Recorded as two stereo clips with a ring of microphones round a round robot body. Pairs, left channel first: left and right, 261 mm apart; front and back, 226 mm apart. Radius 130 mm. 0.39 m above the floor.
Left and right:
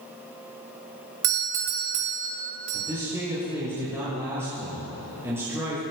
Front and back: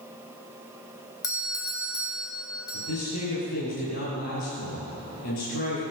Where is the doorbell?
75° right, 2.5 m.